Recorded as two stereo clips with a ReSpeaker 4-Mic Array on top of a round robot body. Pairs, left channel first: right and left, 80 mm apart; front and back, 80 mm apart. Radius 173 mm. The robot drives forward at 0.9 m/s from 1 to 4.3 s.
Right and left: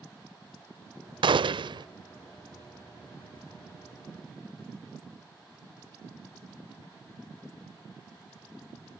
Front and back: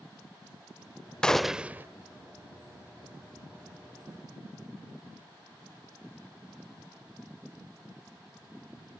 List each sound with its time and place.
1.2 s a gunshot: 80° left; by 1.9 s 115° left